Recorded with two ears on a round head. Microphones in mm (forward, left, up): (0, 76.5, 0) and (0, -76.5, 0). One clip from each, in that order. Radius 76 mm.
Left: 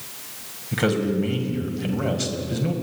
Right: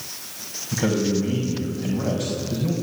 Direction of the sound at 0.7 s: 50° left (ahead or behind).